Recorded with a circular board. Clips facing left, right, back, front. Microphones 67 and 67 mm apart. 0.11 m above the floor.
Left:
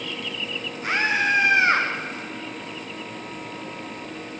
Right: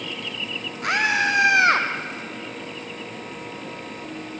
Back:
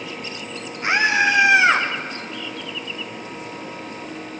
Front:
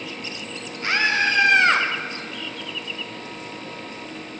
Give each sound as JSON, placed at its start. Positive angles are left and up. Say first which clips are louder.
{"t": 0.8, "sound": "a scream", "louder": "right 1 dB, back 3 dB", "azimuth_deg": -110, "distance_m": 5.0}